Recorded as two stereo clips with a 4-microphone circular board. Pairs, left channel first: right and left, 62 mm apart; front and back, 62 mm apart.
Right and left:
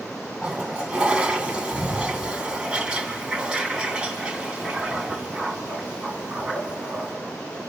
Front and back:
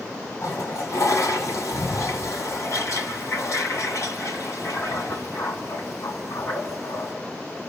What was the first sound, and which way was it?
A toilet flushing, 20° left.